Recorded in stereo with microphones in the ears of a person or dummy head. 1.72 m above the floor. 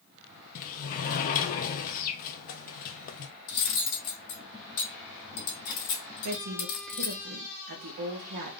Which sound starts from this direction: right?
A woman speaking, at 6.2 s.